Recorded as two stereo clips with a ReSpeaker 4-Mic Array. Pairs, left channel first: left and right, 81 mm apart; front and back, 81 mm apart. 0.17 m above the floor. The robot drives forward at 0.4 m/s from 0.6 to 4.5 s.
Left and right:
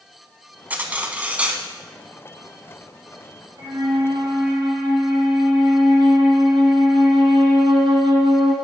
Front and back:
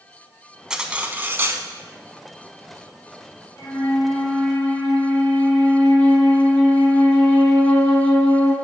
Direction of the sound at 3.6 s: 70° right.